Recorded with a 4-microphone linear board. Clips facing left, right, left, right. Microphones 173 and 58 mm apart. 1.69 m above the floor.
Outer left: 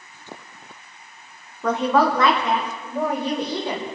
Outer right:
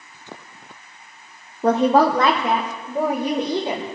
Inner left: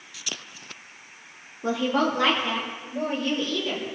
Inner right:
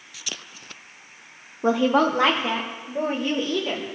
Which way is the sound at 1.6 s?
30° right (ahead or behind).